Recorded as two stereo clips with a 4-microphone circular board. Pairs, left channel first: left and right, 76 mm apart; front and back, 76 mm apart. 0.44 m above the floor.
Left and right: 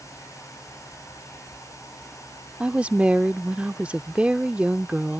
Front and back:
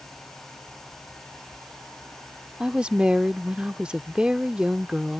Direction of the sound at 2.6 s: 130° right.